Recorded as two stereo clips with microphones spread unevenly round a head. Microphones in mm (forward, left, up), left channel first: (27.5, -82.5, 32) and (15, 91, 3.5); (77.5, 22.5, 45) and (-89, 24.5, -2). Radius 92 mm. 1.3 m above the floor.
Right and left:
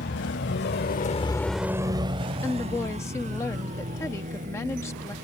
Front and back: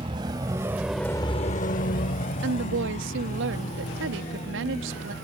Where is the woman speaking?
160° right.